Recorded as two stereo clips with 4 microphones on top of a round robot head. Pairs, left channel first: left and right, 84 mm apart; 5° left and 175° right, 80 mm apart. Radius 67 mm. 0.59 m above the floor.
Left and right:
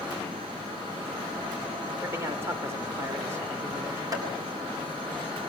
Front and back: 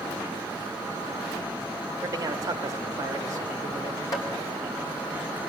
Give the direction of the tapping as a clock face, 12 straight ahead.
1 o'clock.